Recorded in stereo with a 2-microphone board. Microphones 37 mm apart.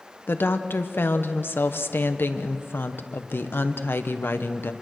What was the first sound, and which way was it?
A woman speaking, 80° left.